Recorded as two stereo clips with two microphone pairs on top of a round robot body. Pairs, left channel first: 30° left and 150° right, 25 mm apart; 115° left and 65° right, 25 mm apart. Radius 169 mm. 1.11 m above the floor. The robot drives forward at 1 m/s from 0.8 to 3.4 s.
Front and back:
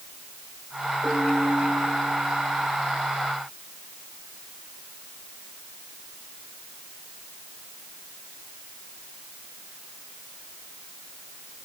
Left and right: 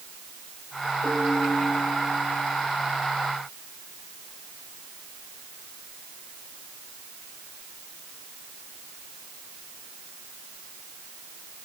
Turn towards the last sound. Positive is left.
turn(degrees=70)